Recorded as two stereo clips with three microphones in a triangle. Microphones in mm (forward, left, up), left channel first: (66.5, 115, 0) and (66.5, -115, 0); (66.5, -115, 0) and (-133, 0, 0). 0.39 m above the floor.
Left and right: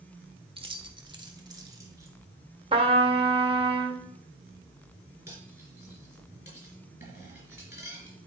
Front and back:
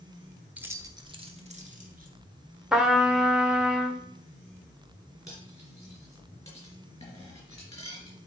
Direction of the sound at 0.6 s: 130° right.